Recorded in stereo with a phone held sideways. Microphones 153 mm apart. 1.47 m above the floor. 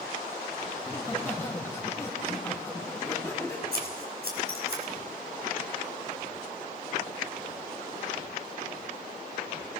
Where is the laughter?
15° left (ahead or behind), 3 m.